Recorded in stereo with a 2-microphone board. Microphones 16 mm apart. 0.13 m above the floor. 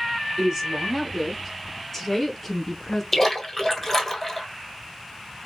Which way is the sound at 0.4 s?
20° right (ahead or behind).